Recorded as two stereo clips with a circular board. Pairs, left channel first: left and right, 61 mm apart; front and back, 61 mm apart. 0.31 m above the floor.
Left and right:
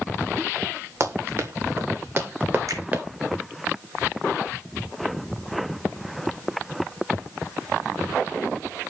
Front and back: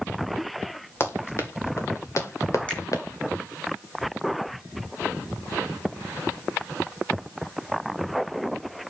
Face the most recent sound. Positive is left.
turn(degrees=-70)